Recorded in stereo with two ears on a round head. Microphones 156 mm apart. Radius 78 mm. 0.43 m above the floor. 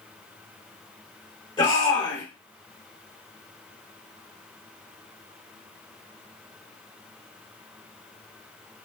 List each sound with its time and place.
1.6 s a shout: 25° left (ahead or behind), 1.8 m